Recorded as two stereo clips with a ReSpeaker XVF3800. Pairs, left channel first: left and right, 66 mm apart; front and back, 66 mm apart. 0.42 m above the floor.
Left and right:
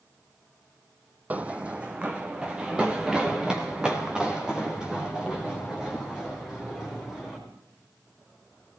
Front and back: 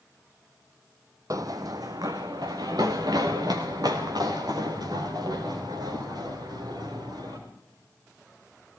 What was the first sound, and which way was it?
Running footsteps, 155° right.